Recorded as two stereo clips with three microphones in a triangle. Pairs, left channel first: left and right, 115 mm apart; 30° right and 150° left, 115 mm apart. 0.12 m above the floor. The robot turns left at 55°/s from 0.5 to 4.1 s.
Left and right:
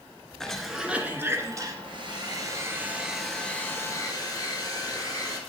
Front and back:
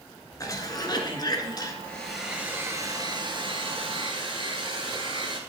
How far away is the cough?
About 1.3 m.